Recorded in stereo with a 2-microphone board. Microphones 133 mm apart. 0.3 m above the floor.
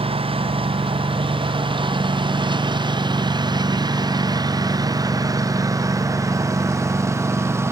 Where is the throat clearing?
I don't hear throat clearing.